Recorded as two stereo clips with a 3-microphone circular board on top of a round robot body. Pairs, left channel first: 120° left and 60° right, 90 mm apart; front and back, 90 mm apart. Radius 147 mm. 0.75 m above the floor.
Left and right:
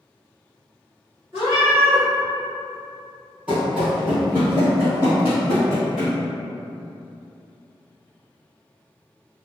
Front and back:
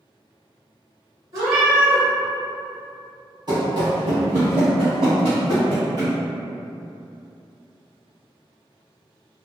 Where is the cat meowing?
125° right, 1.5 m.